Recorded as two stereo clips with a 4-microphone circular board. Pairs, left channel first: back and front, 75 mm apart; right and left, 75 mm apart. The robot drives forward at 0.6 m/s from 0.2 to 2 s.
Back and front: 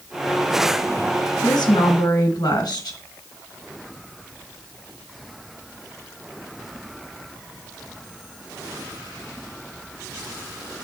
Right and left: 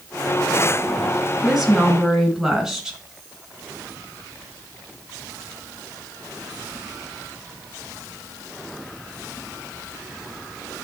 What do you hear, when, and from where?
1.4 s a woman speaking: 175° left, 2 m